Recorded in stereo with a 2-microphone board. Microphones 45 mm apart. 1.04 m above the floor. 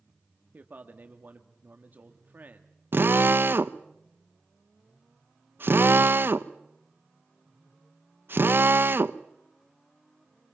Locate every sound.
0.5 s a man speaking: 40° right (ahead or behind), 1.6 m
2.9 s a drill: 55° right (ahead or behind), 0.9 m